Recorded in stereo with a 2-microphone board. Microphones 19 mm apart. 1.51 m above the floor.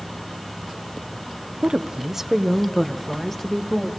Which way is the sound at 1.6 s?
60° right (ahead or behind).